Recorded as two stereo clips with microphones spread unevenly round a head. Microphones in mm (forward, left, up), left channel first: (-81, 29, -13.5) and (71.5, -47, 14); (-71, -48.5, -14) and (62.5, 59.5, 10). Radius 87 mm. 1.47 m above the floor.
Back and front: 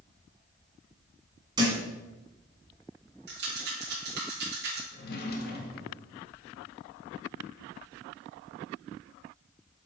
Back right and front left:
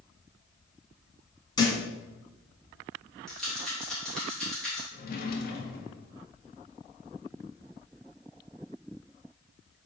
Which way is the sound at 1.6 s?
75° right.